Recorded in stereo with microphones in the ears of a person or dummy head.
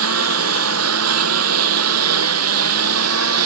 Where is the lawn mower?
80° right.